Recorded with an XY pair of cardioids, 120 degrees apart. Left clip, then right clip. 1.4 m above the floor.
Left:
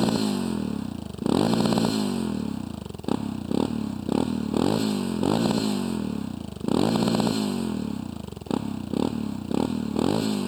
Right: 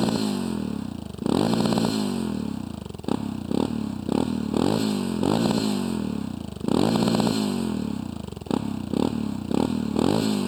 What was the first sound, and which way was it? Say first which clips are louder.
A motorcycle: even; straight ahead.